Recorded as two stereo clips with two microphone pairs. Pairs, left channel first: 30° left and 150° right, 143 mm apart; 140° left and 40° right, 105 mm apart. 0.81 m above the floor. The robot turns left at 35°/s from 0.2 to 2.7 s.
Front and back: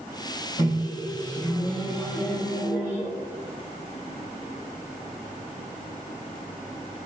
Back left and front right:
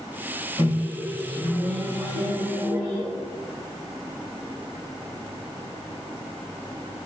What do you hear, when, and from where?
0.6 s a microwave: 20° right, 1.9 m; by 3.1 s 90° right, 1.9 m